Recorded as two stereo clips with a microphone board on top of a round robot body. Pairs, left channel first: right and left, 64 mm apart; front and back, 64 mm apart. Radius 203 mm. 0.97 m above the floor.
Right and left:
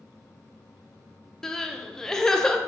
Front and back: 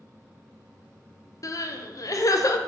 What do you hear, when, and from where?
1.4 s crying: 10° right, 0.5 m